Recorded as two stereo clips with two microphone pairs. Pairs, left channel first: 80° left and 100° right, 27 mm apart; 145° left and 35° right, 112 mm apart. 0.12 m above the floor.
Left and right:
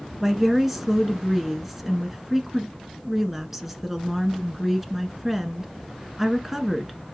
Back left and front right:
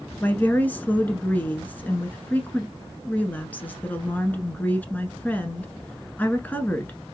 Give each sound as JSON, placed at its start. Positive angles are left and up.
{"t": 0.2, "sound": "a woman speaking", "azimuth_deg": -165, "distance_m": 1.1}